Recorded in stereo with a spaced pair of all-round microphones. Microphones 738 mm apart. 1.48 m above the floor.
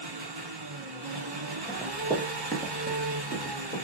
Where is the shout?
I don't hear a shout.